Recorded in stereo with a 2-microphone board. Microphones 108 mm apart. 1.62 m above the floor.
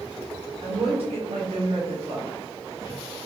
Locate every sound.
0.6 s a woman speaking: 65° right (ahead or behind), 1.4 m